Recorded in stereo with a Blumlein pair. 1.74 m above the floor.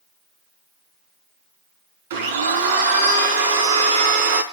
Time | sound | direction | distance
2.1 | a blender | 60° right | 3 m